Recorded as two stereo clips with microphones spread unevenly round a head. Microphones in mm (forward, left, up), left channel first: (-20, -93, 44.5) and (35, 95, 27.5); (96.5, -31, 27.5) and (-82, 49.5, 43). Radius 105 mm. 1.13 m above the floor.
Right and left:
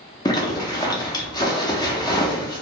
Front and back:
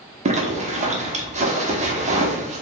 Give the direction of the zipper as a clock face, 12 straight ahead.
6 o'clock.